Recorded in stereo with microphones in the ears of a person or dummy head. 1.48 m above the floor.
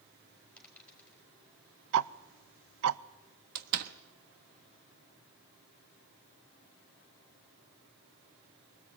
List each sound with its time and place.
0.6 s a dropped coin: 5° left (ahead or behind), 4 m
1.9 s ticking: 70° right (ahead or behind), 0.6 m
3.5 s a door slam: 55° right (ahead or behind), 1.3 m